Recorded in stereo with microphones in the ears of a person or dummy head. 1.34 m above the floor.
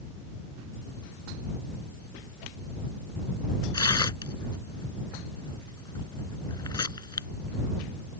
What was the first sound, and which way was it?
Tearing paper, 25° left (ahead or behind).